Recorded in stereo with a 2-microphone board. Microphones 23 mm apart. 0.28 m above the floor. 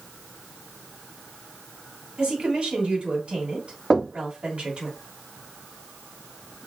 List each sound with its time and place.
2.2 s a woman speaking: 45° right (ahead or behind), 2.0 m
3.9 s knocking: 20° right (ahead or behind), 0.8 m